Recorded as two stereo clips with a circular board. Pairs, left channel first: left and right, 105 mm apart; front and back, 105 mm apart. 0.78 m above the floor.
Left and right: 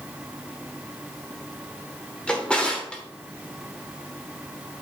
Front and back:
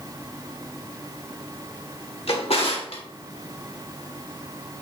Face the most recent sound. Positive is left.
turn(degrees=10)